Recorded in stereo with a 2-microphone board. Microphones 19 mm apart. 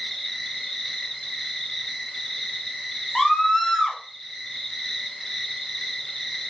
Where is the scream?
20° left (ahead or behind), 1.2 m.